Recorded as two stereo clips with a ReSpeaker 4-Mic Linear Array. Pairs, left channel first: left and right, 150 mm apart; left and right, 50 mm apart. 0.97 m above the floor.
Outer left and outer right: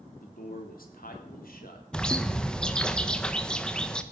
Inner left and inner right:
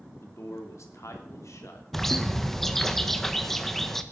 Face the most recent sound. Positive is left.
turn(degrees=5)  # may be behind; listen again after turning